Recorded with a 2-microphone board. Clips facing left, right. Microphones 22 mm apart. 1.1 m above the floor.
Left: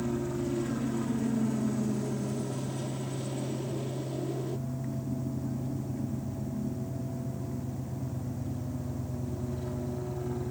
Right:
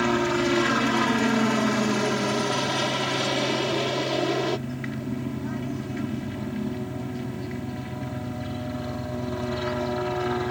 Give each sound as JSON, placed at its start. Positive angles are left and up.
{"t": 0.0, "sound": "a helicopter", "side_deg": -65}